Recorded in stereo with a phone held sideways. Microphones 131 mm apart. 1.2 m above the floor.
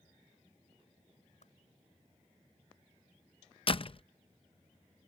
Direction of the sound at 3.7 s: 45° left (ahead or behind).